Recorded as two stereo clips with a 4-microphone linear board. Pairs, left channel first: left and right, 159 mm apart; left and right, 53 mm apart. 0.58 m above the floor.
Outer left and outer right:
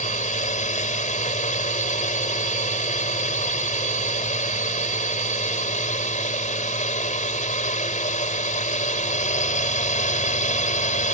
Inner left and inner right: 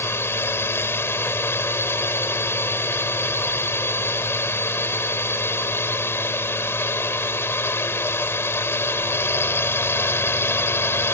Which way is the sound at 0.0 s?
50° left (ahead or behind).